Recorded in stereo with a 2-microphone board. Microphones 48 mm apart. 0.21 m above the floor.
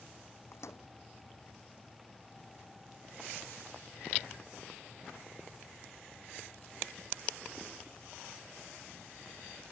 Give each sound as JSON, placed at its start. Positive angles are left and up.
{"t": 0.5, "sound": "a microwave", "side_deg": 70}